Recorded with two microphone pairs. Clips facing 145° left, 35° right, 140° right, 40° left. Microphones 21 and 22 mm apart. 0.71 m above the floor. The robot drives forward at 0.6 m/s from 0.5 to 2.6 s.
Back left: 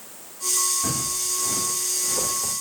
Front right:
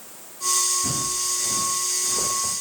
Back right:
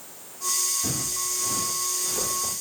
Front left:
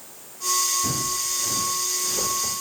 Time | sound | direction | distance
0.8 | footsteps | 155° left | 9 m